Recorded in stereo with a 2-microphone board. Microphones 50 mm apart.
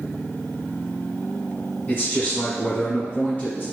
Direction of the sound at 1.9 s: 35° left (ahead or behind).